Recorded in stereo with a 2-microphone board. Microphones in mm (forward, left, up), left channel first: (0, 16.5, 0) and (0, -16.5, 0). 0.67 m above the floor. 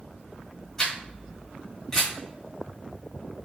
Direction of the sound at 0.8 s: 10° left (ahead or behind).